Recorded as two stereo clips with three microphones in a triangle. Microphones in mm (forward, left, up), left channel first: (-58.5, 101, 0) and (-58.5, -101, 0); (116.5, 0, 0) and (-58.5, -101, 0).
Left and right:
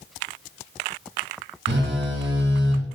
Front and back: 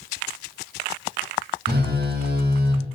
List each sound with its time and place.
1.7 s a phone buzzing: 115° right, 0.6 m